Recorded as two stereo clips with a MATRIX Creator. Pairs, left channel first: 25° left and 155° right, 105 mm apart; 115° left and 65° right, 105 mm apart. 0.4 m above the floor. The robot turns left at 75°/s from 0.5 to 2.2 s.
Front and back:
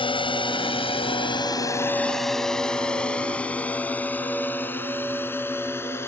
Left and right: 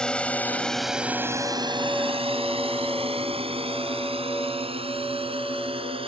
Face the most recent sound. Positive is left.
turn(degrees=-45)